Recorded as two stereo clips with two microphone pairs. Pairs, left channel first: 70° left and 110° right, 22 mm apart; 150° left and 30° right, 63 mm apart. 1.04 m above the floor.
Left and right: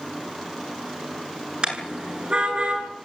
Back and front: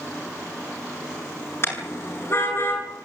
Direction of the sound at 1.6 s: 165° right.